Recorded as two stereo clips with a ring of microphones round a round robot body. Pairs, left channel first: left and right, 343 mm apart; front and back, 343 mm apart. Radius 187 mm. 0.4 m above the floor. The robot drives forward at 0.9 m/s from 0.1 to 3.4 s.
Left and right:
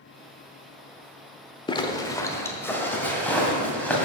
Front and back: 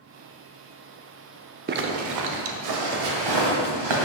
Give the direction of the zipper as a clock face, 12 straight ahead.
7 o'clock.